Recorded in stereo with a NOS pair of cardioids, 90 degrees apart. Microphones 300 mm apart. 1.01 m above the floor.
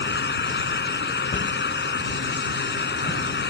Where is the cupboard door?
30° left.